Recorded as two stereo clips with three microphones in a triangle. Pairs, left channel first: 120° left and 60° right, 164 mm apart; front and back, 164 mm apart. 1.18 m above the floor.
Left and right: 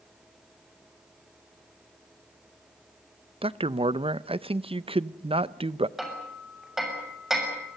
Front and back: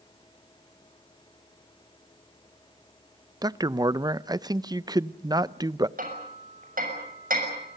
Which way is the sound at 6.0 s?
150° right.